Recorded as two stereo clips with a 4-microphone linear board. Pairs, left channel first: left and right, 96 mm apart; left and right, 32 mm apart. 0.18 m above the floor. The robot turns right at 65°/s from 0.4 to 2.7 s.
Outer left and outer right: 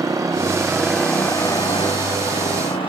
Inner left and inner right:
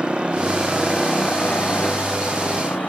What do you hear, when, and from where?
0.0 s a motorcycle: 35° right (ahead or behind); by 2.9 s 70° left (ahead or behind)